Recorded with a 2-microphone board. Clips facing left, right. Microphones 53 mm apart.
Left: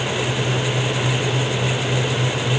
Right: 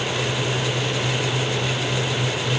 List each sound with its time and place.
Only background noise.